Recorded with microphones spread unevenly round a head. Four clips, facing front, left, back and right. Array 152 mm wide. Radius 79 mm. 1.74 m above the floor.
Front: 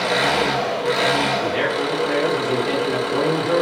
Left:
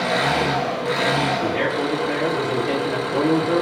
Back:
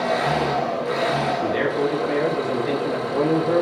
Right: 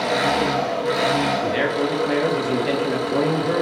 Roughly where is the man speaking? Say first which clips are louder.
Right 1 dB, even; right.